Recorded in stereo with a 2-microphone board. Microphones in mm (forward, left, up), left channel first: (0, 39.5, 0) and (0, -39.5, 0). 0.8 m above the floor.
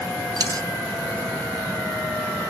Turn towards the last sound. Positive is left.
turn(degrees=-55)  # may be behind; listen again after turning